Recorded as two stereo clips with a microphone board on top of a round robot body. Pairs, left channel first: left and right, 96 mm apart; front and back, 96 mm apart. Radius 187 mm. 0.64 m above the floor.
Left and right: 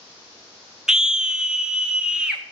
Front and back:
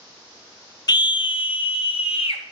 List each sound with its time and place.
0.9 s a scream: 10° right, 0.6 m